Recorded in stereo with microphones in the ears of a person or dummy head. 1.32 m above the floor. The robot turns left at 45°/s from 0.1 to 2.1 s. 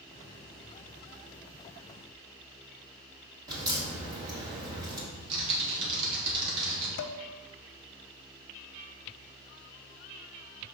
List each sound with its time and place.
3.5 s a crack: 20° right (ahead or behind), 1.7 m
5.1 s typing on a keyboard: 65° right (ahead or behind), 2.5 m
7.0 s dishes clattering: 60° left (ahead or behind), 0.6 m